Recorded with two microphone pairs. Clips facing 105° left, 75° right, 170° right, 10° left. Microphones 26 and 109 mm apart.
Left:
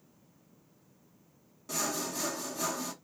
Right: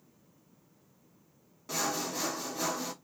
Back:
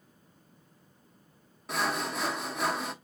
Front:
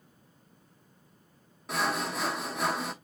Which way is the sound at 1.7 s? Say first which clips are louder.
Right 1 dB, front 1 dB; 85° right.